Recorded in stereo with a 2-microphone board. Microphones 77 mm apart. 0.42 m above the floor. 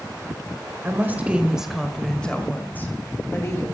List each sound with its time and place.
0.8 s a woman speaking: 30° right (ahead or behind), 1.9 m; by 3.6 s 40° left (ahead or behind), 3 m